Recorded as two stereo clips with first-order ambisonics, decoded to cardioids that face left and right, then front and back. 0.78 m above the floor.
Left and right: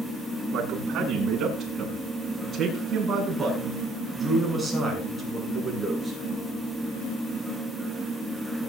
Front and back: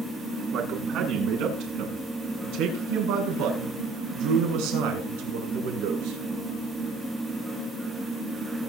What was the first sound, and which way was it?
A man speaking, 140° right.